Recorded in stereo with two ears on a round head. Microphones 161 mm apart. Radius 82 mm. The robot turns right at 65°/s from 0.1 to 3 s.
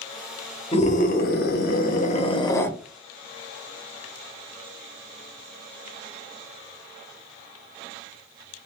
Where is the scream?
40° left, 0.8 m; by 2.7 s 170° left, 0.8 m.